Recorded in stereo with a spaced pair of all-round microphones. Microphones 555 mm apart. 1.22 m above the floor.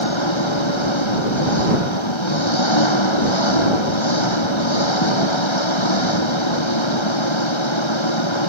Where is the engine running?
60° left (ahead or behind).